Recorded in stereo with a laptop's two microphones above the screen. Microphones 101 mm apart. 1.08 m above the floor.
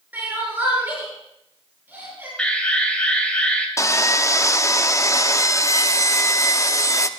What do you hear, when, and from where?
0.1 s crying: 20° right (ahead or behind), 6.5 m
2.4 s an alarm: 10° left (ahead or behind), 3 m
3.8 s sawing: 30° left (ahead or behind), 0.8 m